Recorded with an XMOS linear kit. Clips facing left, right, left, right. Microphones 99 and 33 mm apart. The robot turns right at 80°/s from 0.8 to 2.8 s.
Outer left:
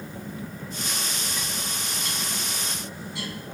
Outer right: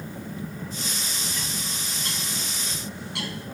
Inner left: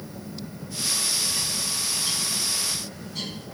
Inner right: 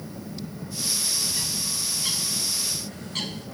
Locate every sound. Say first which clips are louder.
1.3 s a bird: outer left 1 dB, inner left 1 dB; 15° left (ahead or behind), 0.6 m; by 3.5 s 70° right (ahead or behind), 0.6 m